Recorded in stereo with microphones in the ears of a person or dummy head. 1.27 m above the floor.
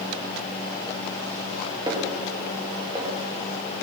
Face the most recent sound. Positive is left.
turn(degrees=-25)  # may be behind; listen again after turning